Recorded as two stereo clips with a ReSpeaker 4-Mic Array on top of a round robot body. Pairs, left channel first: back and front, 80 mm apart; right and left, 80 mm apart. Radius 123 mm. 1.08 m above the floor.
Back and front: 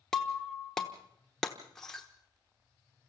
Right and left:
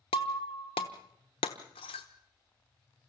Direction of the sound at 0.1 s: 95° right.